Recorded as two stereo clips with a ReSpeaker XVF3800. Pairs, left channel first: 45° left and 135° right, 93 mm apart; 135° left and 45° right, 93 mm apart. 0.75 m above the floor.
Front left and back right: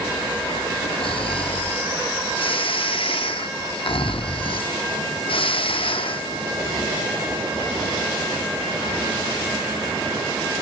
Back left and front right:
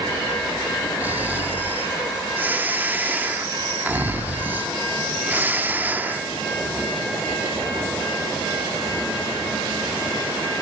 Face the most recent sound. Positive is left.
turn(degrees=25)